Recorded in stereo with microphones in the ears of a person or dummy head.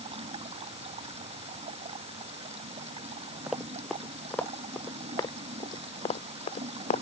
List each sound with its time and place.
0.0 s running water: 35° right (ahead or behind)
3.5 s running footsteps: centre (ahead or behind); by 7.0 s 45° left (ahead or behind)